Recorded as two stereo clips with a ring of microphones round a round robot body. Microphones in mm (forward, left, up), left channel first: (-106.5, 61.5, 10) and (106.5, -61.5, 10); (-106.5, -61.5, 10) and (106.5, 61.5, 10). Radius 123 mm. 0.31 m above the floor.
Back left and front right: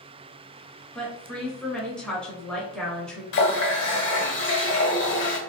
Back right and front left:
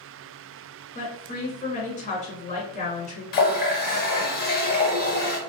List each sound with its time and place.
0.9 s a woman speaking: 125° right, 1.1 m
3.3 s a running tap: 170° left, 0.8 m